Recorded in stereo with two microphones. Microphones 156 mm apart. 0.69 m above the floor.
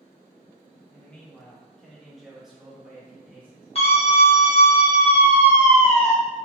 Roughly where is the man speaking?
Centre.